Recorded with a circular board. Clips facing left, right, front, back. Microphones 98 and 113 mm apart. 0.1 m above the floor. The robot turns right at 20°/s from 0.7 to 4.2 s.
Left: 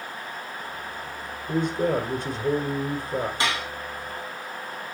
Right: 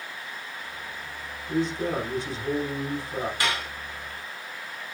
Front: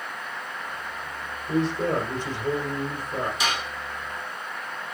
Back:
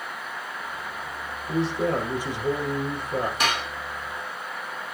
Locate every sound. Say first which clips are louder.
1.5 s a man speaking: left 3 dB, even; 90° left, 2.5 m; by 3.3 s 125° left, 2.5 m
3.4 s dishes clattering: left 2 dB, back 2 dB; 155° left, 2 m; by 3.7 s 160° left, 2 m